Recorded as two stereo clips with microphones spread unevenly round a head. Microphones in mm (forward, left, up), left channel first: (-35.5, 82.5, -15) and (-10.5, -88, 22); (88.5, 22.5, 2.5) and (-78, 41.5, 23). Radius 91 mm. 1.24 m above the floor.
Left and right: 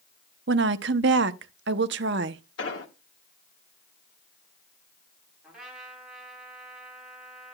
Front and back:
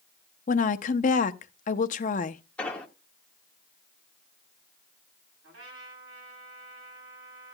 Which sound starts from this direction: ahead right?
A woman speaking, at 0.5 s.